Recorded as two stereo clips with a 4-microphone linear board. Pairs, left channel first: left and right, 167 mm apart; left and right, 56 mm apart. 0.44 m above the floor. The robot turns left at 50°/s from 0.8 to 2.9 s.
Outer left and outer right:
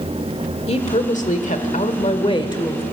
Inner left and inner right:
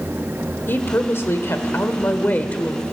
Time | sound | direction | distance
0.7 | a woman speaking | 125° left | 1.5 m